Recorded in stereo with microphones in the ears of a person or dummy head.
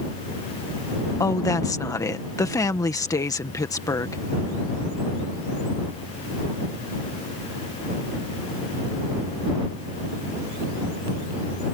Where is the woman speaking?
20° left (ahead or behind).